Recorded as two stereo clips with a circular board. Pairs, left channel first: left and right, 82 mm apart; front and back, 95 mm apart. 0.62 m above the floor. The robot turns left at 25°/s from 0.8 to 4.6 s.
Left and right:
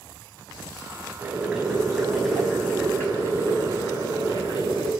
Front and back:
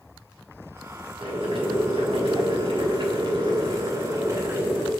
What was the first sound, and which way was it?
Boiling, 160° right.